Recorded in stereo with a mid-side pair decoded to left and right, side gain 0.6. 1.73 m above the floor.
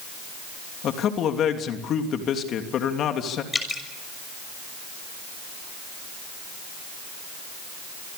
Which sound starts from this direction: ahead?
Dripping, at 3.5 s.